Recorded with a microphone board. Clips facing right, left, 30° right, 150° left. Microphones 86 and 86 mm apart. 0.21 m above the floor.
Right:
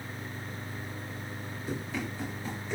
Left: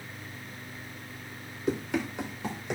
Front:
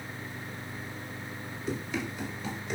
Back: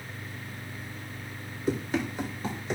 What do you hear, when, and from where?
1.7 s running footsteps: 105° left, 4.5 m; by 2.8 s 100° left, 4.5 m